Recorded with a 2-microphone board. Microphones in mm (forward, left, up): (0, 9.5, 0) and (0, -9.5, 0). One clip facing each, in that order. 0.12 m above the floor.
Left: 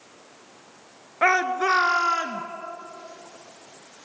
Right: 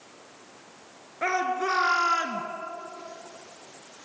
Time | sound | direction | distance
1.2 | a shout | 45° left (ahead or behind) | 1.6 m